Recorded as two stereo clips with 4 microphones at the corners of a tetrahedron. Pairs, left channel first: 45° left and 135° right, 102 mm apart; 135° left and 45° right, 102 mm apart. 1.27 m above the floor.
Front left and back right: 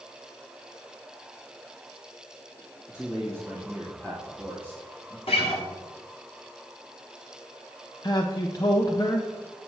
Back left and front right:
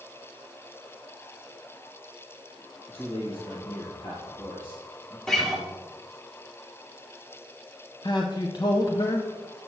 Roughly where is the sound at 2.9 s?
Left.